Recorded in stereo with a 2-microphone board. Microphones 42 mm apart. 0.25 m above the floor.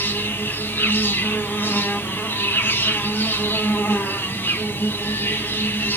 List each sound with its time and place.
0.0 s an insect: 65° left (ahead or behind), 5.5 m